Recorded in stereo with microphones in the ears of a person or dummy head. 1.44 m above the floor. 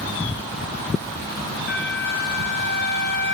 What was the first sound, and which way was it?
A flute, 40° left (ahead or behind).